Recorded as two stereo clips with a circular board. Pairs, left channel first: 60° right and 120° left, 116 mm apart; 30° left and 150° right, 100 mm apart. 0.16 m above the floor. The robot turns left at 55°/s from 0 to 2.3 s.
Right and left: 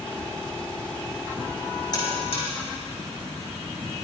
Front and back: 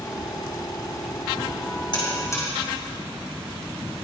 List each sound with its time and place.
1.9 s a buzzer: 10° right, 5.5 m; by 2.5 s 30° right, 5.5 m